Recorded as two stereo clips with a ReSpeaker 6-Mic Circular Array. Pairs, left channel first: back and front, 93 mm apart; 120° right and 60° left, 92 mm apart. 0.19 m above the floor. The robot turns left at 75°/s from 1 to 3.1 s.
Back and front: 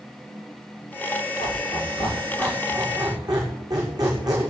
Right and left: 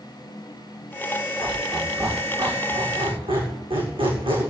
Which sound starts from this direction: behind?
A squeak, at 1.4 s.